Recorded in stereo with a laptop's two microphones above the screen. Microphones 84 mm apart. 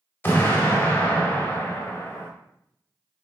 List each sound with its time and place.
0.2 s an explosion: 25° left (ahead or behind), 0.9 m